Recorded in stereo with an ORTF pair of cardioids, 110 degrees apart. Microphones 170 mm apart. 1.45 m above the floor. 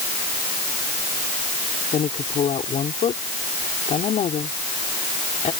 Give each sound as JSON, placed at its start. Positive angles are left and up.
{"t": 1.9, "sound": "a woman speaking", "azimuth_deg": 40}